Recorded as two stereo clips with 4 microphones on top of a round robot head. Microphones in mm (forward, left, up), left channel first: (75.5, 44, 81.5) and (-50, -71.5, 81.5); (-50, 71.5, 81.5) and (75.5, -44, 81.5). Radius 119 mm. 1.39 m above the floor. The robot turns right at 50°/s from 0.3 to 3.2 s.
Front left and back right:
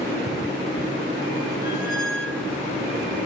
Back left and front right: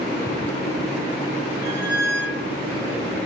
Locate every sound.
1.6 s a squeak: 25° left, 2 m; by 2.5 s 70° left, 2 m